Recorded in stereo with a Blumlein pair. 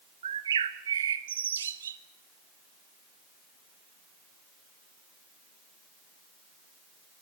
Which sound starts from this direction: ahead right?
A bird, at 0.2 s.